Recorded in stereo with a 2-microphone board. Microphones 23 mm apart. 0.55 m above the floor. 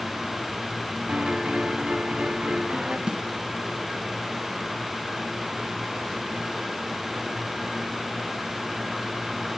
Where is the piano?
55° right (ahead or behind), 3 m.